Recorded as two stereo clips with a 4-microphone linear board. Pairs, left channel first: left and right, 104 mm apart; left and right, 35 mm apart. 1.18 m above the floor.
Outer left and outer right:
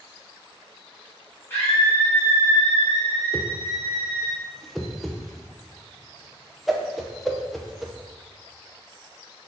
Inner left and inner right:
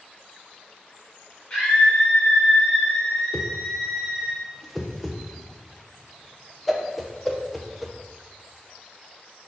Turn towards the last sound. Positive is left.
turn(degrees=0)  # may be behind; listen again after turning